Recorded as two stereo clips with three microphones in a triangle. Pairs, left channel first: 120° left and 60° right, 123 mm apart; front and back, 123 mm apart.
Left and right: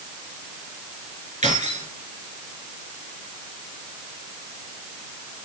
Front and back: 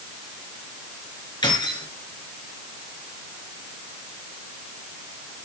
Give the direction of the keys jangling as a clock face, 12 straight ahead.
2 o'clock.